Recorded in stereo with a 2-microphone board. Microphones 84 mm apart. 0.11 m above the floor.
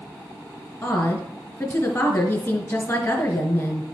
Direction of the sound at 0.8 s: 30° left (ahead or behind).